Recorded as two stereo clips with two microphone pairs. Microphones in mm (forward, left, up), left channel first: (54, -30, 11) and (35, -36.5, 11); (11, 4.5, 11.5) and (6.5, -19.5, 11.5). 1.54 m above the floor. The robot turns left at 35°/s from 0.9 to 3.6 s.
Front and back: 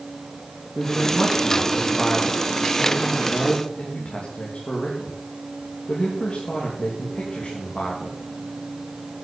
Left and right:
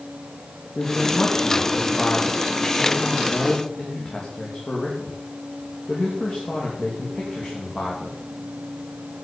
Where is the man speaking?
135° left, 3 m; by 8.2 s 40° left, 3 m.